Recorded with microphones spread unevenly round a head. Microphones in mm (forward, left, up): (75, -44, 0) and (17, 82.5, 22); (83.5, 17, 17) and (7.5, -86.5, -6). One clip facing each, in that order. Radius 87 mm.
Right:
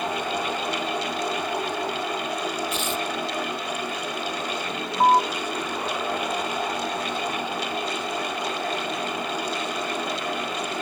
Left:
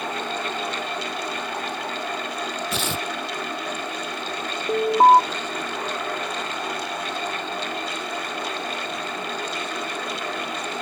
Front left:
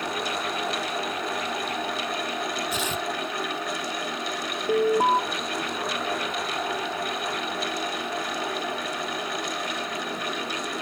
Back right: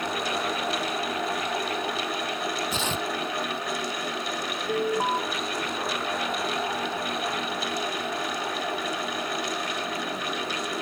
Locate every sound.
2.7 s tearing paper: 160° left
4.7 s an alarm: 60° left